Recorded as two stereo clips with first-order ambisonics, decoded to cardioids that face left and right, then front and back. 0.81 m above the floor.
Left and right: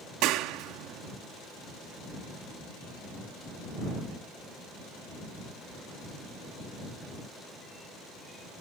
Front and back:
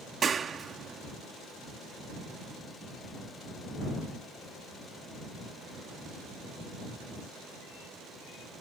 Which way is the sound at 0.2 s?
115° right.